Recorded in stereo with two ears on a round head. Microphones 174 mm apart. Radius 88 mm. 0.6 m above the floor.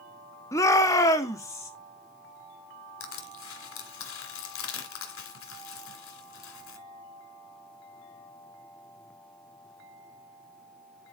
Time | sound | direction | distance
0.5 | a shout | 15° left (ahead or behind) | 1.1 m
3.0 | crushing | 80° left | 2 m